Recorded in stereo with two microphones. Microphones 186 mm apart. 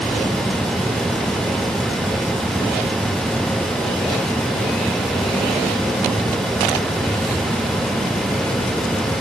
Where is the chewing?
No chewing in this recording.